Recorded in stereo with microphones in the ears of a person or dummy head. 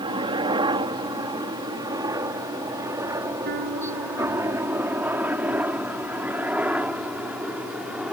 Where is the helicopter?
30° right (ahead or behind); by 8.1 s 10° right (ahead or behind).